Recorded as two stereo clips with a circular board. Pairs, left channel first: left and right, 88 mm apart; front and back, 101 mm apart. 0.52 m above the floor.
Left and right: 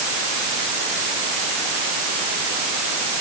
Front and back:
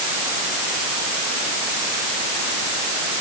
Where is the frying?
I don't hear frying.